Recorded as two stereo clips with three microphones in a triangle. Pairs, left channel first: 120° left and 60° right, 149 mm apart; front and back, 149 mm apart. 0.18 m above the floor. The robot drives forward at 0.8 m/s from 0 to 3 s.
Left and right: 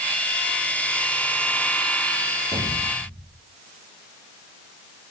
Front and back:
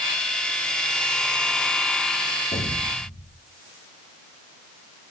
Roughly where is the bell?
No bell in this recording.